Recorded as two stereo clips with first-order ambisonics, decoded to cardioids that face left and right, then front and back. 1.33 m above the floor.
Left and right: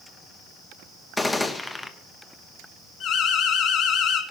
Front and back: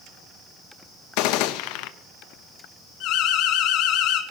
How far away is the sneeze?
I don't hear a sneeze.